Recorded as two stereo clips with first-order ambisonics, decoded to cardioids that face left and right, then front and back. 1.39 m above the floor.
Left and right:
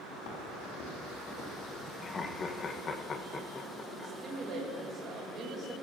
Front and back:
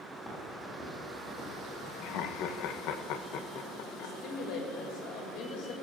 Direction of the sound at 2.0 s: 25° left.